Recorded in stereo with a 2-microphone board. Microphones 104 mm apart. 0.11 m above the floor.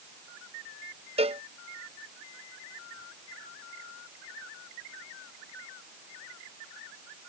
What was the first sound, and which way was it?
A cowbell, 75° right (ahead or behind).